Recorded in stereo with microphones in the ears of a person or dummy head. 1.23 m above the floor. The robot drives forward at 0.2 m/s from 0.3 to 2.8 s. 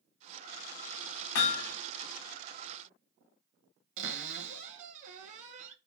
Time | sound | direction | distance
1.4 | hammering | 75° left (ahead or behind) | 1.0 m
4.0 | a cupboard door | 40° right (ahead or behind) | 0.7 m